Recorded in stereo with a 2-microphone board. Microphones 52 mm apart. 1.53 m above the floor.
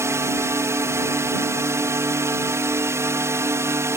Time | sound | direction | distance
0.0 | a drone | 60° right (ahead or behind) | ?